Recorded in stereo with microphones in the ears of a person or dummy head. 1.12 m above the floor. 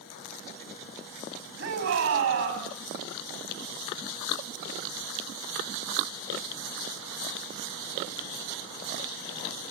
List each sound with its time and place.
1.6 s a shout: 70° right (ahead or behind), 7.5 m